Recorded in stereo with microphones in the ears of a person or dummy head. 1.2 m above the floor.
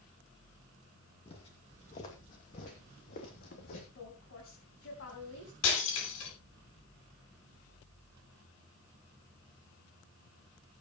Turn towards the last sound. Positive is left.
turn(degrees=75)  # may be behind; listen again after turning